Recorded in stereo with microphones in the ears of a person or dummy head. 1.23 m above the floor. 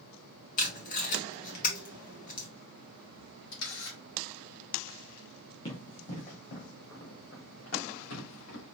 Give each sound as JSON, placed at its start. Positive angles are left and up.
{"t": 0.6, "sound": "tape being pulled", "side_deg": 45, "distance_m": 1.8}
{"t": 3.5, "sound": "a camera shutter", "side_deg": 65, "distance_m": 3.0}
{"t": 5.7, "sound": "running footsteps", "side_deg": 35, "distance_m": 2.5}